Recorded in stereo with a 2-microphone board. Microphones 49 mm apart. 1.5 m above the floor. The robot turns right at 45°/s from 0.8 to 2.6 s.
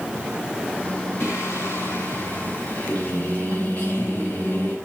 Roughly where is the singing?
Left.